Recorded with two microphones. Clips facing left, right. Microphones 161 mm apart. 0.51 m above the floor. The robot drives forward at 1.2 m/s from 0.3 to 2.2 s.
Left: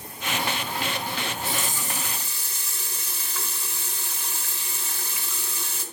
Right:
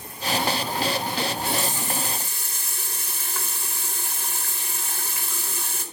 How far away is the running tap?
About 2.5 m.